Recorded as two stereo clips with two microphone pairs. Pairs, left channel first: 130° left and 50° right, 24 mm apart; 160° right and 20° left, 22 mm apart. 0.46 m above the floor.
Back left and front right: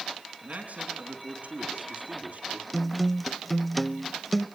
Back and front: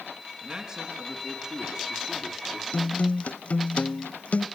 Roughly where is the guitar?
Behind right.